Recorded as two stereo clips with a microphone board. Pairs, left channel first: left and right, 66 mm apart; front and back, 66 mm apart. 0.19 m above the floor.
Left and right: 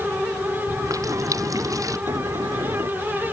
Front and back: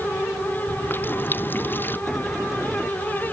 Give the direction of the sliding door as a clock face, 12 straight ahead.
3 o'clock.